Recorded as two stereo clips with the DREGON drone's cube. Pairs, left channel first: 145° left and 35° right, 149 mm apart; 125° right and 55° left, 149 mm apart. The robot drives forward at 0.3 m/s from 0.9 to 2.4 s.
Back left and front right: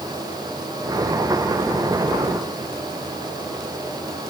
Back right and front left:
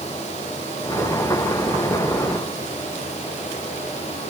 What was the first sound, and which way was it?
Only background noise.